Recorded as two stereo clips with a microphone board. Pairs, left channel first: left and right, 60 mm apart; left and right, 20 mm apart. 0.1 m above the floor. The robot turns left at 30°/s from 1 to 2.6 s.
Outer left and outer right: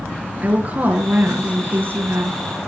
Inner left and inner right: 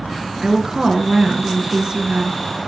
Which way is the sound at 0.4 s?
50° right.